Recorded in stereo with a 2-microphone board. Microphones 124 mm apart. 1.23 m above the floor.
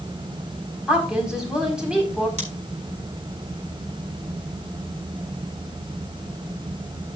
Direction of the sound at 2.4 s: 70° right (ahead or behind).